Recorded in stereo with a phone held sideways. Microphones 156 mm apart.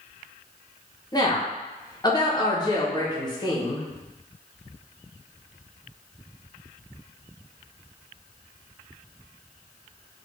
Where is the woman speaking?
25° left (ahead or behind), 1.0 m.